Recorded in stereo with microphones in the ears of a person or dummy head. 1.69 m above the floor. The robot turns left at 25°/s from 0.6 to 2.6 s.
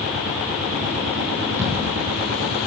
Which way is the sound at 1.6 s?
15° right (ahead or behind).